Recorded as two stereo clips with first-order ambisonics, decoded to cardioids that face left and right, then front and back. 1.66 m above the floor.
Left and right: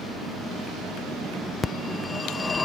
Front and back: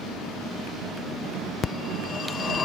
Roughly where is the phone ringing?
Ahead left.